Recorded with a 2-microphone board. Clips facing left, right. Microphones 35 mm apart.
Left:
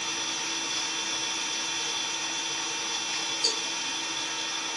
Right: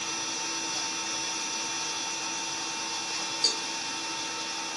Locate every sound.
0.0 s an engine running: 60° left (ahead or behind), 1.7 m
3.4 s a cowbell: 40° right (ahead or behind), 1.0 m